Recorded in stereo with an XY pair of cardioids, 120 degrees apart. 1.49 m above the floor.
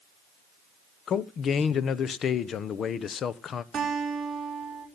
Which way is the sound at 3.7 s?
25° right.